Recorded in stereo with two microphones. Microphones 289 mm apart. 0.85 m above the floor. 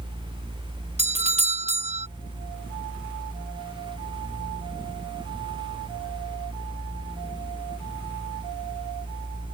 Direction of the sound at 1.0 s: 20° right (ahead or behind).